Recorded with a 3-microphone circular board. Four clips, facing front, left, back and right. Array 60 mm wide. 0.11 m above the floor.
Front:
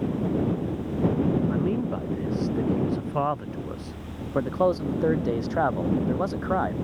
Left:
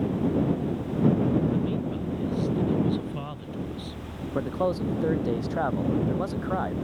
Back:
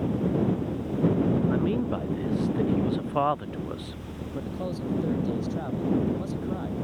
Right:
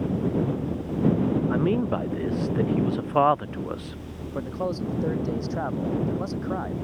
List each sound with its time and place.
1.5 s a man speaking: 95° right
4.3 s a man speaking: 10° left